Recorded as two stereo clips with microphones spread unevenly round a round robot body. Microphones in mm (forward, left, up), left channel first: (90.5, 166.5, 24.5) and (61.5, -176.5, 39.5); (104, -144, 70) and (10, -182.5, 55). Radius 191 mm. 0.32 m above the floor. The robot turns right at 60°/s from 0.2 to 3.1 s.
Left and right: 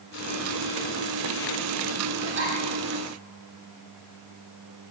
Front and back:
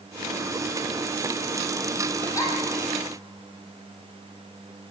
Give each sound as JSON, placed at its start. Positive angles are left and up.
{"t": 2.2, "sound": "a giggle", "azimuth_deg": -45, "distance_m": 6.0}